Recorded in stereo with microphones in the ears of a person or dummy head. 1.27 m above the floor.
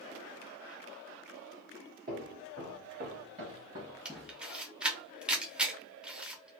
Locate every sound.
2.1 s footsteps: 45° right (ahead or behind), 1.7 m; by 4.4 s centre (ahead or behind), 1.3 m
4.0 s a camera shutter: centre (ahead or behind), 0.5 m